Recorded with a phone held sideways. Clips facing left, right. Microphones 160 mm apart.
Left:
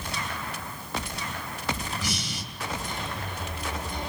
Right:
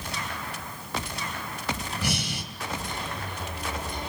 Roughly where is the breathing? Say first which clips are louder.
Right 3 dB; right.